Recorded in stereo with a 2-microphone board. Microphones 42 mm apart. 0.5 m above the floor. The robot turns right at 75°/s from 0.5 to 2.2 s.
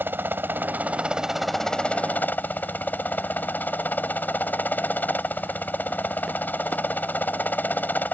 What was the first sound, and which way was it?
A helicopter, 75° right.